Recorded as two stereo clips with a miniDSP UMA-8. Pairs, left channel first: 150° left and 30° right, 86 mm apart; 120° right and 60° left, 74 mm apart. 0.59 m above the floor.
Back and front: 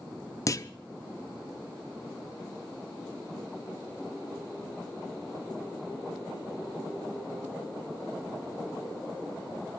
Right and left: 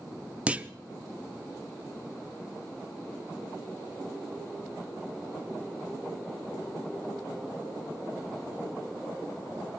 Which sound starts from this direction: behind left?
A clunk, at 0.5 s.